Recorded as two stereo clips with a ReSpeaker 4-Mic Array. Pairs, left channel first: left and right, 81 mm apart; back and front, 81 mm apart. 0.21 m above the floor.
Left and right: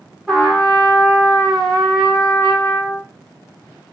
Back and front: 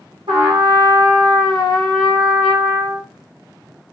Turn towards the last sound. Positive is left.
turn(degrees=0)